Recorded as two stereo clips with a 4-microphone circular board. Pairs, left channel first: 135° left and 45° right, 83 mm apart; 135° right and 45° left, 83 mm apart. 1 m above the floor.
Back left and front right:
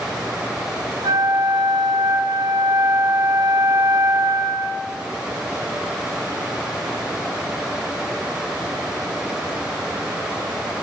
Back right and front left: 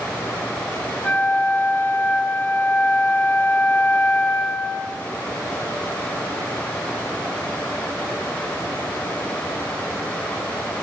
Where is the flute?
65° right, 3 m.